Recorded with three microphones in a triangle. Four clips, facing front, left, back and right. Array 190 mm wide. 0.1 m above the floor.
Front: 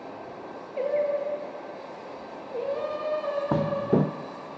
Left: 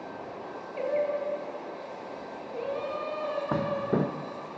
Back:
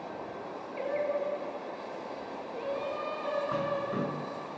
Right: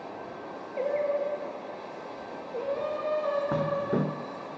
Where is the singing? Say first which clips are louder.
Right 1 dB, front 6 dB; 25° right, 1.6 m.